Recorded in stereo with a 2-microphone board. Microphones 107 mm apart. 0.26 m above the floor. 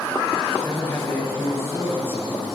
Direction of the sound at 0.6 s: 25° left (ahead or behind).